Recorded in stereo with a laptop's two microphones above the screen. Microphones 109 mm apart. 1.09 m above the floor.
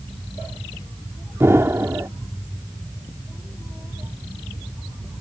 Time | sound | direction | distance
1.4 | an explosion | 25° right (ahead or behind) | ?